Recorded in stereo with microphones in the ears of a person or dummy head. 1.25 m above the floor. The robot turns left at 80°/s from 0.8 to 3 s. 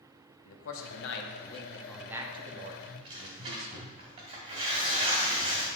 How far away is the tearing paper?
About 1.8 m.